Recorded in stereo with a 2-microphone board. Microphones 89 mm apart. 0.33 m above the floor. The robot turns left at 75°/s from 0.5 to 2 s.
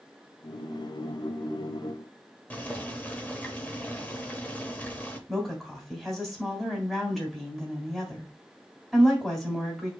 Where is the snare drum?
I don't hear a snare drum.